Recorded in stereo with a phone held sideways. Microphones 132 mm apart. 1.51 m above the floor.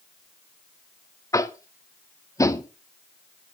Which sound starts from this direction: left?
Tapping, at 1.3 s.